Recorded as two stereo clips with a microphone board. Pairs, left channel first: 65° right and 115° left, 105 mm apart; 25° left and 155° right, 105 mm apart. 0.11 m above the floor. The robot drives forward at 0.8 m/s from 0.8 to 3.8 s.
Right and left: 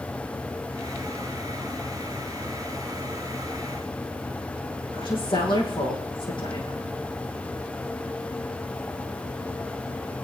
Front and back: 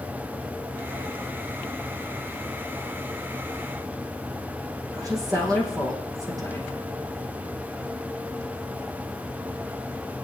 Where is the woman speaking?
105° right, 4.5 m.